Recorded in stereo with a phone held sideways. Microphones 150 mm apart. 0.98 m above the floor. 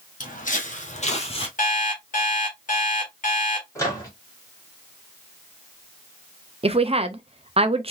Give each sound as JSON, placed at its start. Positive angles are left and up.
{"t": 0.2, "sound": "footsteps", "side_deg": 60, "distance_m": 1.9}
{"t": 1.6, "sound": "an alarm clock", "side_deg": 60, "distance_m": 1.7}
{"t": 3.8, "sound": "a microwave", "side_deg": 20, "distance_m": 1.8}
{"t": 6.6, "sound": "a woman speaking", "side_deg": -40, "distance_m": 0.6}